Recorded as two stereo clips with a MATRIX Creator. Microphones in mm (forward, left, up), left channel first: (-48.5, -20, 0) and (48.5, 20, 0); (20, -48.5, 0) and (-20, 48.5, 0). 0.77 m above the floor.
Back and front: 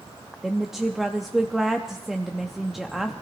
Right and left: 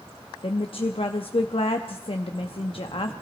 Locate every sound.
0.4 s a woman speaking: 65° right, 0.7 m